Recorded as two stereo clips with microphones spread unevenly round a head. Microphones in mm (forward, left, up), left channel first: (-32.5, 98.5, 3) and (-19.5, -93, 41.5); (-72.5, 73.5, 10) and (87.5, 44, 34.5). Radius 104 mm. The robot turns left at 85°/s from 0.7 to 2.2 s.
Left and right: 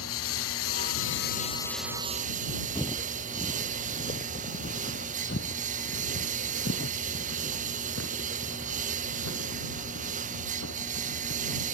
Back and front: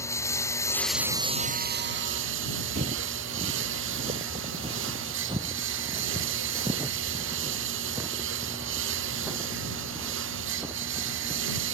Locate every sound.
0.0 s a lawn mower: 95° left; by 11.7 s 30° right
2.8 s footsteps: 10° left; by 11.6 s 70° left